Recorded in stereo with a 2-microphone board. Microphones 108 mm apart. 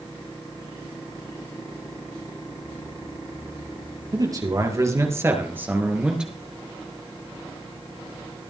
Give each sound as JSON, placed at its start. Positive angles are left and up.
{"t": 4.1, "sound": "a man speaking", "side_deg": -35, "distance_m": 4.5}